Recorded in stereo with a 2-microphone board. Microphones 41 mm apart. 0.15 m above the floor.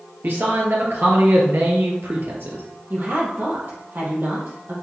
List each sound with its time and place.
0.2 s a man speaking: 55° right (ahead or behind), 2.5 m; by 2.6 s 65° right (ahead or behind), 2.5 m
2.9 s a woman speaking: 55° right (ahead or behind), 4.5 m